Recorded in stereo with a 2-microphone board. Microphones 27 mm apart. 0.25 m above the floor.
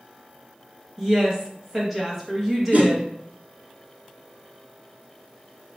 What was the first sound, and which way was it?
A woman speaking, 10° right (ahead or behind).